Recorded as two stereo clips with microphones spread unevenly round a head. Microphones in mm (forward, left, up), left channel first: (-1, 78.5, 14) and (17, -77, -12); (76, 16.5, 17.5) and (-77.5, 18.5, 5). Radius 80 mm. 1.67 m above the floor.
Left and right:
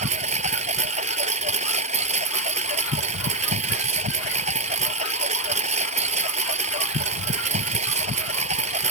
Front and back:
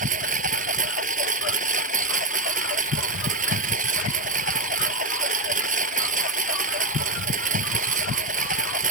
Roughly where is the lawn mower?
Behind right.